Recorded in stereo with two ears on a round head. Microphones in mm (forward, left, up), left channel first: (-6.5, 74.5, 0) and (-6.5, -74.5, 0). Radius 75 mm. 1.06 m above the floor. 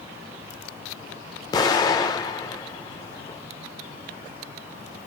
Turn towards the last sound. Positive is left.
turn(degrees=25)  # may be behind; listen again after turning